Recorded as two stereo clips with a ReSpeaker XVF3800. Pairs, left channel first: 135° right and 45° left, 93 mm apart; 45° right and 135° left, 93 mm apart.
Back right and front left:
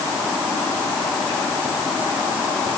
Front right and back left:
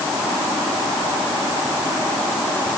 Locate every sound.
Only background noise.